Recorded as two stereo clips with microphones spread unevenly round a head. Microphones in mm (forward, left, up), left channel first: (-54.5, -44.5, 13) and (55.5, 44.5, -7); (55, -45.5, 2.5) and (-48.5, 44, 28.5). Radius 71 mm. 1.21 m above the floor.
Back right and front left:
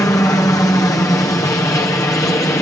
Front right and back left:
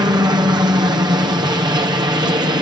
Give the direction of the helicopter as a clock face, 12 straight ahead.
6 o'clock.